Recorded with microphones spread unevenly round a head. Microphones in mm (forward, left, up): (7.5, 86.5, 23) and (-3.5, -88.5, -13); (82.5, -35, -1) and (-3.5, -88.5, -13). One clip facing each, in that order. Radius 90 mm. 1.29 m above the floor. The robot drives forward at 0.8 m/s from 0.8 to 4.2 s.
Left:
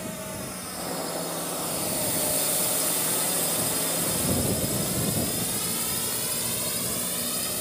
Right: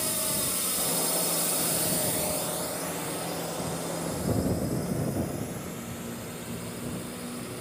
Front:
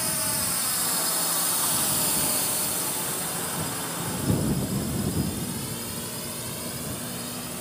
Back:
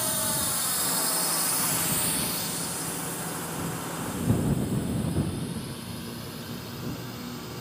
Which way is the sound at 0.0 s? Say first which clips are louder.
Right 1 dB, back 1 dB; 70° right.